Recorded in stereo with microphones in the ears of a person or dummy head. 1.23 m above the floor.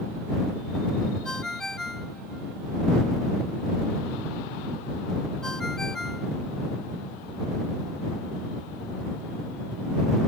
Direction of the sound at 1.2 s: Centre (ahead or behind).